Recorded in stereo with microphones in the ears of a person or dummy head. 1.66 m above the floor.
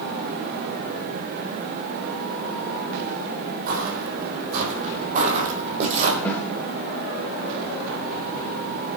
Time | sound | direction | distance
3.7 | footsteps | 55° right (ahead or behind) | 3.5 m
6.2 | a snare drum | 5° left (ahead or behind) | 2.5 m